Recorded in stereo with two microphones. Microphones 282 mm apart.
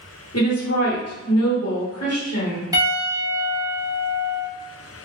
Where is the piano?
10° right (ahead or behind), 0.7 m.